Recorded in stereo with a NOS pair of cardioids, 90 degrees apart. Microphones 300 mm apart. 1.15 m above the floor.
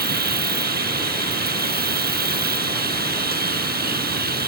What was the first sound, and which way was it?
An insect, 30° right.